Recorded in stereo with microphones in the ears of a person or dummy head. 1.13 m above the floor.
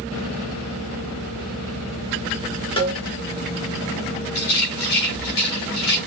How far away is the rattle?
About 3 m.